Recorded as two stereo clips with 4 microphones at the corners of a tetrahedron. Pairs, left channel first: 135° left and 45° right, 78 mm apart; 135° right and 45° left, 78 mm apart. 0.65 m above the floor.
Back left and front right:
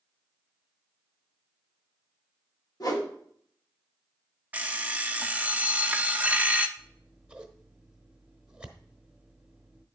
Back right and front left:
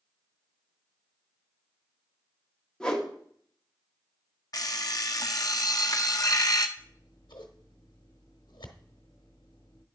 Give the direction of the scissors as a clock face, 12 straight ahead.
4 o'clock.